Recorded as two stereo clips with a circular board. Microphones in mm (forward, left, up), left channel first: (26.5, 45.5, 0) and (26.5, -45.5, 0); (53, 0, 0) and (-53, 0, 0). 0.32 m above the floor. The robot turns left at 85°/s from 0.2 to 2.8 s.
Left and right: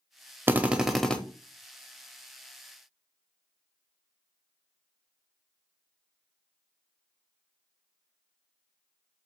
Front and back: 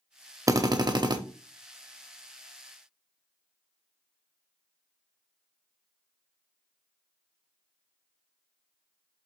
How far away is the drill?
About 0.5 m.